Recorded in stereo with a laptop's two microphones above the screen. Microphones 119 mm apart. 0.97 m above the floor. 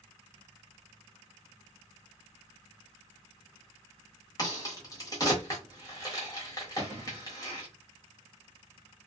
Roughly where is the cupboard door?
Right.